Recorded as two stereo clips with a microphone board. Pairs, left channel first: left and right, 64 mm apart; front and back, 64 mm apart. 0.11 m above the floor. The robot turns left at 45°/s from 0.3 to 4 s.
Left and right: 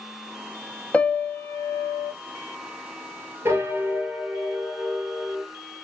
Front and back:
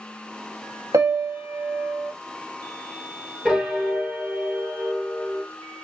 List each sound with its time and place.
0.9 s a piano: 160° left, 0.5 m; by 2.1 s 105° left, 0.5 m
3.5 s a piano: 95° right, 1.5 m; by 5.4 s 120° right, 1.5 m